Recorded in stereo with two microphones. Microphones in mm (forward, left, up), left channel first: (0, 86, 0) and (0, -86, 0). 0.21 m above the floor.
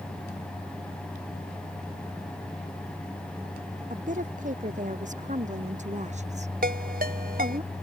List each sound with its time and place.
3.9 s a woman speaking: 50° right (ahead or behind); by 7.6 s 40° right (ahead or behind)
6.6 s a ringtone: 60° right (ahead or behind)